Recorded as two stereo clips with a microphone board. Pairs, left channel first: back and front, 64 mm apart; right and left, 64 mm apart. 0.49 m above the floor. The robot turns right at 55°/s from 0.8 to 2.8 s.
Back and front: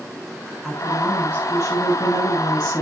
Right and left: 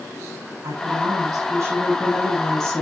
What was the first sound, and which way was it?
A woman speaking, 90° left.